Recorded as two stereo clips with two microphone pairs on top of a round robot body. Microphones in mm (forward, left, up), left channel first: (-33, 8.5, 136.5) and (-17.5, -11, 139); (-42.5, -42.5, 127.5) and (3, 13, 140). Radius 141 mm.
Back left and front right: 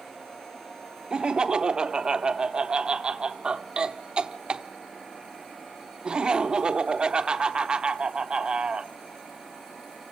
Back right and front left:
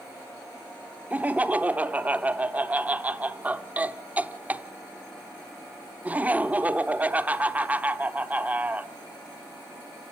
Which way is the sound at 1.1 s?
20° right.